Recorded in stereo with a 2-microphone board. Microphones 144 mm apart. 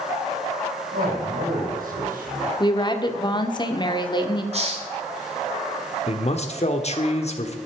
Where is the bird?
No bird in this recording.